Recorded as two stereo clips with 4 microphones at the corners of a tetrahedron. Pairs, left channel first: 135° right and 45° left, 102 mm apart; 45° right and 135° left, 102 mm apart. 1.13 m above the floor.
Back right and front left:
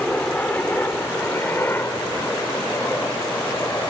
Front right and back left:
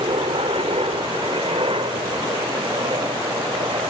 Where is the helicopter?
150° left; by 3.9 s 165° left.